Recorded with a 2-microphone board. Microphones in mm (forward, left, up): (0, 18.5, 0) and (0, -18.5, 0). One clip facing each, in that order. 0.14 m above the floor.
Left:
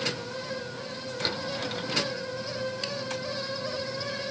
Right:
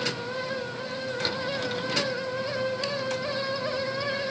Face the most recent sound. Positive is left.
No sound to turn to.